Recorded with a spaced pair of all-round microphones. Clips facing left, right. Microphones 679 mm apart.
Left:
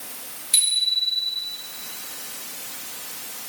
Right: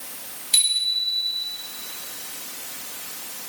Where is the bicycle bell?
40° left (ahead or behind), 5 m.